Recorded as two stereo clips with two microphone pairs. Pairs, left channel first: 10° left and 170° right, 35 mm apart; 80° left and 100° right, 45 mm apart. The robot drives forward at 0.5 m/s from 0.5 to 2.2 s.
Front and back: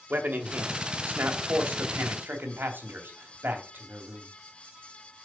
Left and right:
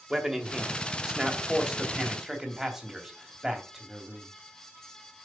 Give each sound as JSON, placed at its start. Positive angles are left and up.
{"t": 0.1, "sound": "a man speaking", "azimuth_deg": -175, "distance_m": 2.0}